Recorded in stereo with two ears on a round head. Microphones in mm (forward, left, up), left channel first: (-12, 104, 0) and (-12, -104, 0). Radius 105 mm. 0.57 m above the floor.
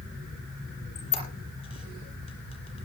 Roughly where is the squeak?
Left.